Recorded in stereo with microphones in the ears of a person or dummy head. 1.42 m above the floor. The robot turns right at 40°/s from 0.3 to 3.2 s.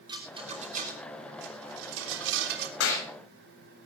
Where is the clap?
80° left, 6 m; by 3.1 s 70° left (ahead or behind), 6 m.